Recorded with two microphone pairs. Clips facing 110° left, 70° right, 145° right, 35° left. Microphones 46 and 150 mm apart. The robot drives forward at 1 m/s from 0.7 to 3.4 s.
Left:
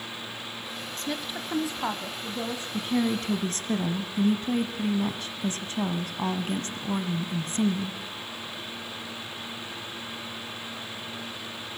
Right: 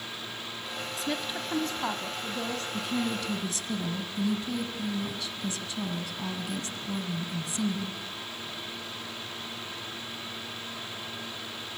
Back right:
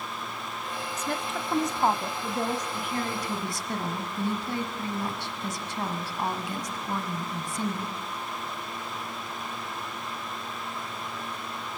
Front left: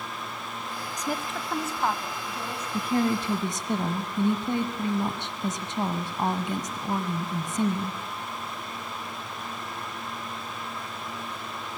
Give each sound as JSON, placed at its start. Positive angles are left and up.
{"t": 1.0, "sound": "a woman speaking", "azimuth_deg": 5, "distance_m": 1.0}
{"t": 2.7, "sound": "a woman speaking", "azimuth_deg": 60, "distance_m": 1.7}